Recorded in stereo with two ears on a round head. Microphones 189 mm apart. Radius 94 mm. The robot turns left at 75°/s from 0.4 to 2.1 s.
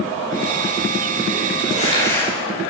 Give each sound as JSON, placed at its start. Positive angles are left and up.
{"t": 1.7, "sound": "crumpling", "azimuth_deg": 45, "distance_m": 9.5}